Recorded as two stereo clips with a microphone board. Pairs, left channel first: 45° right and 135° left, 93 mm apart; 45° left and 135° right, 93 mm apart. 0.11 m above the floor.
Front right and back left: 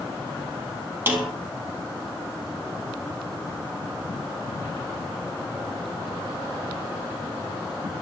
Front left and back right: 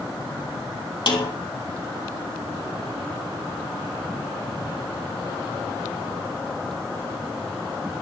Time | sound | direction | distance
1.1 | a snare drum | 70° left | 3.5 m